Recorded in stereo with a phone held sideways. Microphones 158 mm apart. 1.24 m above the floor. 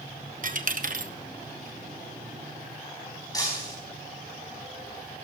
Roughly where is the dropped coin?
Right.